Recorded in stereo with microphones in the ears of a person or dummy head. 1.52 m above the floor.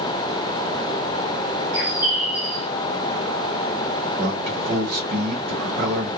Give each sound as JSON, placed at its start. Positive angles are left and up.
{"t": 1.7, "sound": "a bird", "side_deg": -10, "distance_m": 1.8}
{"t": 4.2, "sound": "a man speaking", "side_deg": -45, "distance_m": 0.9}